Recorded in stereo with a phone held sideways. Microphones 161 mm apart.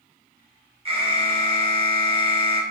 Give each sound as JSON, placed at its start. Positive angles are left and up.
{"t": 0.8, "sound": "an alarm", "side_deg": -35, "distance_m": 0.9}